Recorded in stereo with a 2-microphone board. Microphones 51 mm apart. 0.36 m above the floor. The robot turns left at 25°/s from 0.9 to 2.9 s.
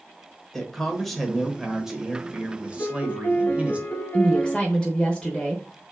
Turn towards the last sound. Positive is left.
turn(degrees=20)  # may be behind; listen again after turning